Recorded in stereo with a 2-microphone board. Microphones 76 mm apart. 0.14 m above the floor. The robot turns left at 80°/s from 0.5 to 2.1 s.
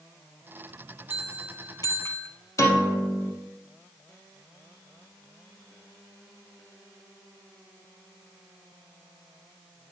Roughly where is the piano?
Left.